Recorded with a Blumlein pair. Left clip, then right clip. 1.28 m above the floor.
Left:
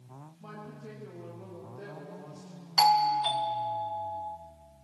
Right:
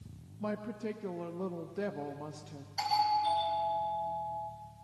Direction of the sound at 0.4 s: 30° right.